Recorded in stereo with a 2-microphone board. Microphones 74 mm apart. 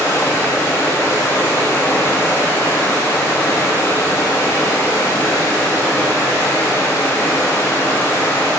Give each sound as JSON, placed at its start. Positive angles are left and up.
{"t": 0.0, "sound": "running water", "side_deg": 35, "distance_m": 4.0}